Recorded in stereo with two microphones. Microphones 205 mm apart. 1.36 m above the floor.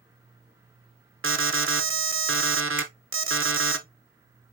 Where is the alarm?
80° right, 0.7 m.